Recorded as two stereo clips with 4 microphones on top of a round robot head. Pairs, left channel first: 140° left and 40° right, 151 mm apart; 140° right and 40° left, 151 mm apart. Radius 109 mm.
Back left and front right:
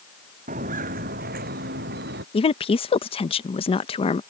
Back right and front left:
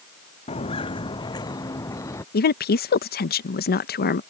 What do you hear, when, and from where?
0.5 s footsteps: 85° right; by 2.2 s 65° right
2.3 s a woman speaking: 165° right